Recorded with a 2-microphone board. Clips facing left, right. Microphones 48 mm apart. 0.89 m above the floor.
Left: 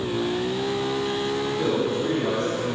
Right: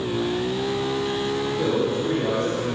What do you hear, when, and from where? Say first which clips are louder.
1.6 s a man speaking: right 1 dB; 20° right (ahead or behind), 2 m